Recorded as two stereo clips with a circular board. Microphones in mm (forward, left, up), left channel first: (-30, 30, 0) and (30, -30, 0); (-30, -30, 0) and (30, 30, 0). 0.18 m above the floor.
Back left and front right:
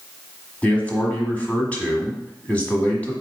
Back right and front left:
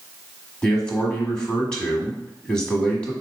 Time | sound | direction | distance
0.6 | a man speaking | 170° left | 1.3 m